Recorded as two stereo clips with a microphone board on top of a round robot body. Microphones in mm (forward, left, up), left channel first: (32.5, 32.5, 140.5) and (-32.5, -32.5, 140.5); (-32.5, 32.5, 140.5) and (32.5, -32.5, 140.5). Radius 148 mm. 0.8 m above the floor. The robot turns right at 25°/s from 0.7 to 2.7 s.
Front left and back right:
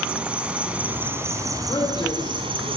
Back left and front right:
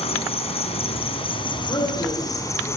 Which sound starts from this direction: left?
A man speaking, at 1.7 s.